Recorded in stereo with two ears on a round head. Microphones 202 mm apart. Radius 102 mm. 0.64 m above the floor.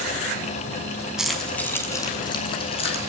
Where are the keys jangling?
5° right (ahead or behind), 3 m; by 3.1 s 25° left (ahead or behind), 5.5 m.